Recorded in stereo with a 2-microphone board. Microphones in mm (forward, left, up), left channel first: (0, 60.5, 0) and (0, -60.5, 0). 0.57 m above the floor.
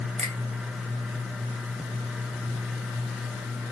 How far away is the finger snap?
About 1.9 m.